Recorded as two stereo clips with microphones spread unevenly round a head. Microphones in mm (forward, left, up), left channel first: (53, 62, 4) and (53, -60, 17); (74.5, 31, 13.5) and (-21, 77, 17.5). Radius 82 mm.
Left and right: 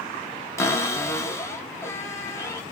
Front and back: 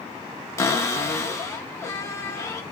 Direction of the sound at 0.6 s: 30° left.